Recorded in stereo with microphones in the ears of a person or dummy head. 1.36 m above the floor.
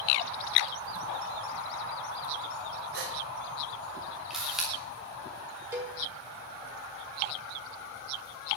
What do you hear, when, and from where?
2.9 s a gasp: 55° right (ahead or behind), 3 m
4.3 s a camera shutter: centre (ahead or behind), 3.5 m
5.7 s a cowbell: 10° right (ahead or behind), 5.5 m